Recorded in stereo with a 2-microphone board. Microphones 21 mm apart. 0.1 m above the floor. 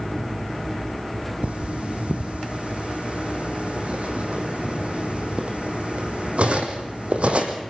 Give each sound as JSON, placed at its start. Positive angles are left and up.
{"t": 1.4, "sound": "cutlery clinking", "side_deg": -75, "distance_m": 2.5}